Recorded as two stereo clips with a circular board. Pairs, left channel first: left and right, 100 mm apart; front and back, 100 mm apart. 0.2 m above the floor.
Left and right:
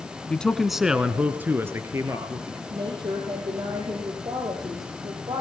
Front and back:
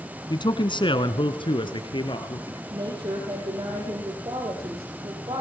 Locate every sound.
0.3 s a man speaking: 15° left, 1.7 m; by 2.6 s 35° right, 3.5 m
2.7 s a woman speaking: 135° right, 7 m